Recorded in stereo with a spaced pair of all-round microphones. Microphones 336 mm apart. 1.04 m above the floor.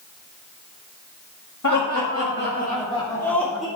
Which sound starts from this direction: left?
Laughter, at 1.6 s.